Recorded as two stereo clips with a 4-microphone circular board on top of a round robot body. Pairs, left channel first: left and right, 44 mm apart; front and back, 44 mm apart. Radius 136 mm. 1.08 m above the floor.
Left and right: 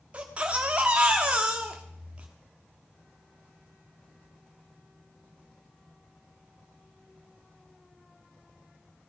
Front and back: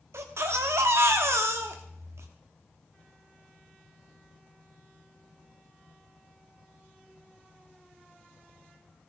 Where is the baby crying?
155° right, 1.0 m.